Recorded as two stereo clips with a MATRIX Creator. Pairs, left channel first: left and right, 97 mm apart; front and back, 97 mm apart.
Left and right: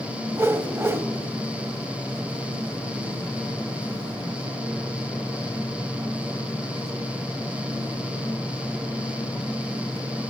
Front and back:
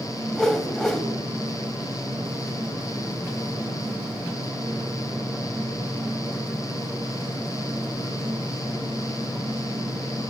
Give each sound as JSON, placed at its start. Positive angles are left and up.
{"t": 0.3, "sound": "a whoosh", "azimuth_deg": -75, "distance_m": 0.5}